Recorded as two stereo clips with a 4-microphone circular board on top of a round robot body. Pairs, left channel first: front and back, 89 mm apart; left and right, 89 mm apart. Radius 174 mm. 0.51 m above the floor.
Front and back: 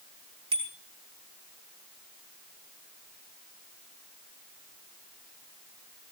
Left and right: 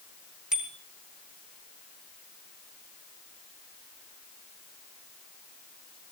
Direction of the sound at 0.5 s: 175° right.